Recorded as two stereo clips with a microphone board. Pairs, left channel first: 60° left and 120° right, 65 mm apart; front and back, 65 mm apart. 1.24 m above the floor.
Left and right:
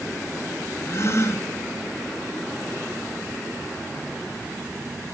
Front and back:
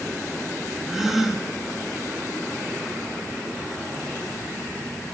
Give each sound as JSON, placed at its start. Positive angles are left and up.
{"t": 0.9, "sound": "a gasp", "azimuth_deg": 100, "distance_m": 0.9}